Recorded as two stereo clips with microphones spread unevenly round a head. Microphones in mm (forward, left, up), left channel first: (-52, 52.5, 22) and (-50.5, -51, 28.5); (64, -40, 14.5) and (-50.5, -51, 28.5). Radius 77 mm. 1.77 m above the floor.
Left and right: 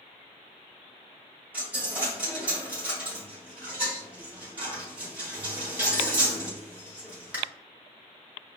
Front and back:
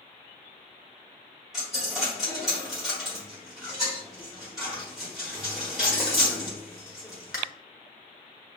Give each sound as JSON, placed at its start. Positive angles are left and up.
{"t": 1.5, "sound": "a dropped coin", "azimuth_deg": -115, "distance_m": 1.1}